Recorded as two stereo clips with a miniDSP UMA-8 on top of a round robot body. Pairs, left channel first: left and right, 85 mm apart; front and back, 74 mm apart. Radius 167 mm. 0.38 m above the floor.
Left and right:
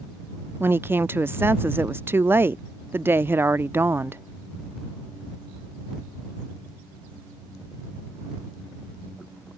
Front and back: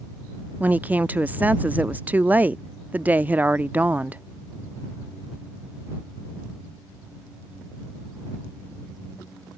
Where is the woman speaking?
130° right.